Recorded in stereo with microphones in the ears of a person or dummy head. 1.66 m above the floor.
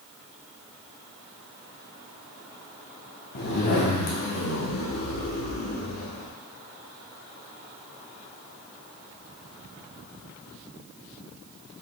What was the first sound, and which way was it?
A zipper, 50° left (ahead or behind).